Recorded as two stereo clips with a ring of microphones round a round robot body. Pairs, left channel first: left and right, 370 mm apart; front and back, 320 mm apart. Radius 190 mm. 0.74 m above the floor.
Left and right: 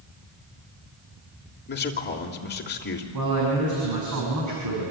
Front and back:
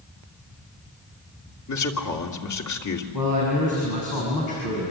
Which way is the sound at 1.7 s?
25° left.